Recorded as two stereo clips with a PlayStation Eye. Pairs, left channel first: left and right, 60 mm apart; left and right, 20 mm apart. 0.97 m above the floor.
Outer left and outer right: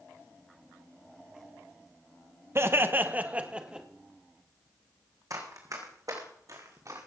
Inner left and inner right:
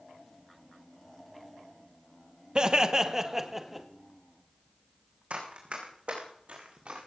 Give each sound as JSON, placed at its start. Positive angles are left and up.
{"t": 2.5, "sound": "laughter", "side_deg": -40, "distance_m": 1.0}
{"t": 5.3, "sound": "running footsteps", "side_deg": -70, "distance_m": 3.0}